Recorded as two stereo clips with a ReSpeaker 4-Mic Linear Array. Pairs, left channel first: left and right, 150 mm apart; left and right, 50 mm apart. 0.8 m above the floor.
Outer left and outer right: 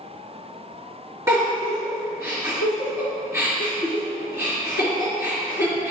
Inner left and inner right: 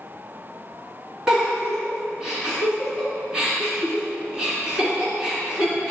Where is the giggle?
20° right (ahead or behind), 3 m.